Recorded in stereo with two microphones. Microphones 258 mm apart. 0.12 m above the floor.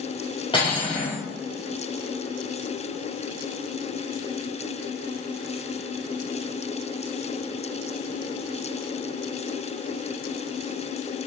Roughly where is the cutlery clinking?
Centre.